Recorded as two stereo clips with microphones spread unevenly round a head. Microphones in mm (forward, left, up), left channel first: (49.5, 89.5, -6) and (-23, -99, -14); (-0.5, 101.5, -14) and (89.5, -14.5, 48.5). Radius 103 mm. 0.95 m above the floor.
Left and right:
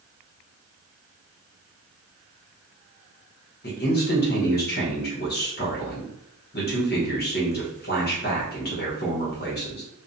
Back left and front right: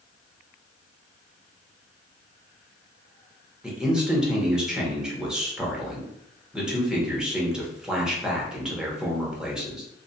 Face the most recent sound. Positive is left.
turn(degrees=55)